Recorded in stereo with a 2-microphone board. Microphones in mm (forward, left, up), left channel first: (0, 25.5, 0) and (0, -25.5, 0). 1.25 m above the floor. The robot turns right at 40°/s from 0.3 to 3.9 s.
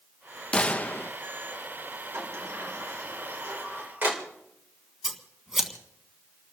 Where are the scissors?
5° right (ahead or behind), 1.8 m.